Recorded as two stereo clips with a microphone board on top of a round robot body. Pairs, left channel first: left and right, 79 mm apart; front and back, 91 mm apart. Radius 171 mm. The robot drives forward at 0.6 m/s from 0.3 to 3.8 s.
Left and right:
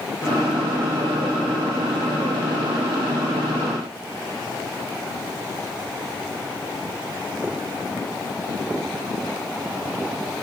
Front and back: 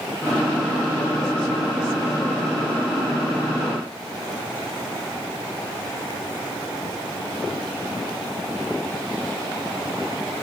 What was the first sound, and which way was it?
Only background noise.